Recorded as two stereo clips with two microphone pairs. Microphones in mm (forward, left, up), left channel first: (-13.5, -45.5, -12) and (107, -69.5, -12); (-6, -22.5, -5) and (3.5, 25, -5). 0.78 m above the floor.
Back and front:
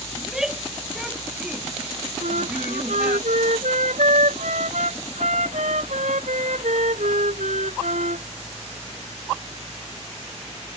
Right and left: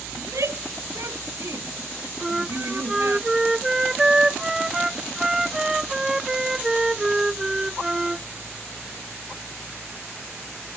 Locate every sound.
0.2 s a shout: 75° left; by 3.2 s 65° left
2.2 s a flute: straight ahead